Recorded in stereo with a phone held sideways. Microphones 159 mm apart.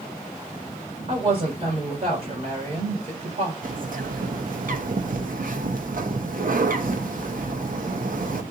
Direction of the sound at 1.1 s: 45° right (ahead or behind).